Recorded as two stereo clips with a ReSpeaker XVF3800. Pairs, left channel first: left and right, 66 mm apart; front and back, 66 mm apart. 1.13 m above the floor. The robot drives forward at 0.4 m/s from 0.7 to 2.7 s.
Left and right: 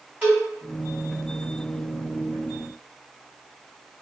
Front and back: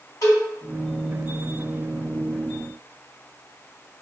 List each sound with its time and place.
0.2 s a cowbell: 20° right, 1.7 m